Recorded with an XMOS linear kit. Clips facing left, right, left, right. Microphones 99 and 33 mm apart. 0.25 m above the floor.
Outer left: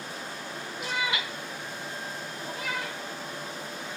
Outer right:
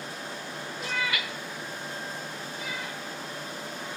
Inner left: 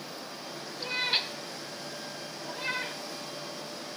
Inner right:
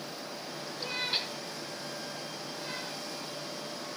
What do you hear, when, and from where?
0.8 s a cat meowing: 5° left (ahead or behind), 1.1 m; by 3.0 s 85° left, 2.5 m